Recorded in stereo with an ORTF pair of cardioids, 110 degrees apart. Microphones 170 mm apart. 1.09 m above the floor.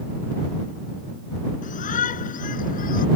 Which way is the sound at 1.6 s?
50° left.